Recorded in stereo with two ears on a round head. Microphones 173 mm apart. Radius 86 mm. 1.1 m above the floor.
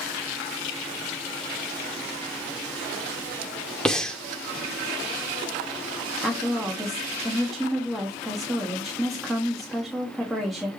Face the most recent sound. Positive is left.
turn(degrees=0)  # may be behind; listen again after turning